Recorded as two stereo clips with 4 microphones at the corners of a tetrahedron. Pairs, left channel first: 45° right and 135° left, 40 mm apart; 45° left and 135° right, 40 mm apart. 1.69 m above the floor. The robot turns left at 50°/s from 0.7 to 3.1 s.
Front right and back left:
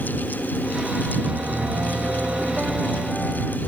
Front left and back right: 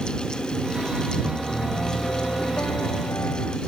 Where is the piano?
140° left; by 3.6 s 45° left.